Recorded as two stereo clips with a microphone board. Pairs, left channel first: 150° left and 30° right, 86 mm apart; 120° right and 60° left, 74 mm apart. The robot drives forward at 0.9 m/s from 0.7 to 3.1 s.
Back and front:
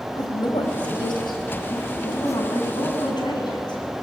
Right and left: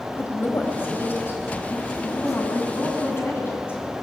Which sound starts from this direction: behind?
A woman speaking, at 0.1 s.